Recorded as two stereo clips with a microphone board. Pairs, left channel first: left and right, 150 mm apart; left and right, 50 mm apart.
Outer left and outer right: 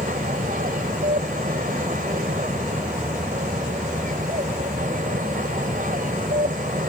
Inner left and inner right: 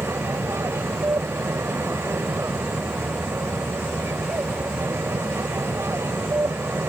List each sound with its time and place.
0.0 s an aircraft: 65° right (ahead or behind)